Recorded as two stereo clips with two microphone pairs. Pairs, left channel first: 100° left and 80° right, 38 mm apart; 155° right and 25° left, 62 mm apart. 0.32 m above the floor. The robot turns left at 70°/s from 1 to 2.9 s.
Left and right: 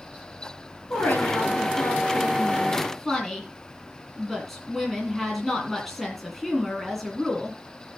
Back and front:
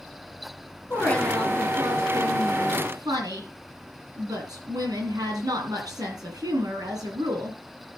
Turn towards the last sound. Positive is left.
turn(degrees=10)